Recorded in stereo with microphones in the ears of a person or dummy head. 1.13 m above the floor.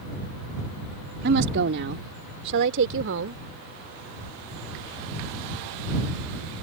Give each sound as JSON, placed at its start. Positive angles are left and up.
{"t": 1.2, "sound": "a woman speaking", "side_deg": -60}